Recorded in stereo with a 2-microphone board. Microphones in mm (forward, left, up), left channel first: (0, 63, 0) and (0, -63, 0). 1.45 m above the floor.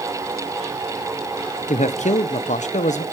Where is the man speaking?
80° left, 0.9 m.